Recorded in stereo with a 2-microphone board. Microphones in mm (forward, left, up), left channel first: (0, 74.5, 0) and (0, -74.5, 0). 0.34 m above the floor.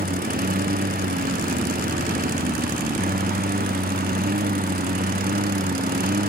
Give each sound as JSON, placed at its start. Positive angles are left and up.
{"t": 0.0, "sound": "a lawn mower", "side_deg": -85}